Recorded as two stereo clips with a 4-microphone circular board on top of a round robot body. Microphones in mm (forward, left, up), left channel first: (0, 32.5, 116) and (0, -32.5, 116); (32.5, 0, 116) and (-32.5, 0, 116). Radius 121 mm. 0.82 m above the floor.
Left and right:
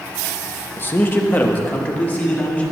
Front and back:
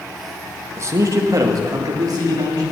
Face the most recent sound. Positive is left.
turn(degrees=155)